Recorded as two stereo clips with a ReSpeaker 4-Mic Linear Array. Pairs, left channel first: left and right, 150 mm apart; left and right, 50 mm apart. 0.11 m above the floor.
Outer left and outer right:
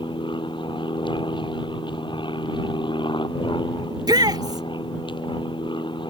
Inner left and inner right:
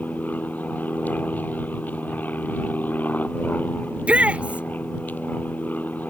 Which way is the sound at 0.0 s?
30° left (ahead or behind).